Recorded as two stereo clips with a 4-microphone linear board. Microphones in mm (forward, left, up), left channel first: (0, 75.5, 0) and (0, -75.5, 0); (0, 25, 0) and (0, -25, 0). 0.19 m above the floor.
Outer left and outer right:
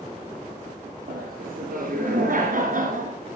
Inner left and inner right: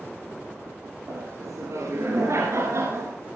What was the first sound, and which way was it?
Laughter, 70° right (ahead or behind).